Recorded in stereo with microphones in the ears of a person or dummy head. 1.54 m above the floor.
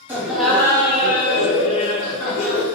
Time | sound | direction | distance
0.1 | laughter | 10° right (ahead or behind) | 0.9 m